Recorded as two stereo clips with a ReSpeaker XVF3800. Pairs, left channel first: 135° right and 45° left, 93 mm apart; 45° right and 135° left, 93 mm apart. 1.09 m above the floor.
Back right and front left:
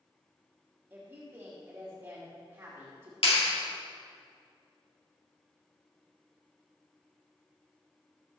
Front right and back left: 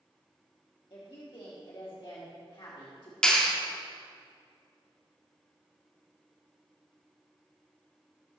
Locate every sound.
0.9 s a woman speaking: 20° right, 1.9 m
3.2 s a clap: 125° right, 1.8 m